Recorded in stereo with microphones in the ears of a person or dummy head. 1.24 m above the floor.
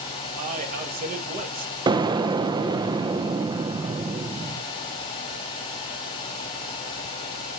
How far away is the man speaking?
About 1.7 m.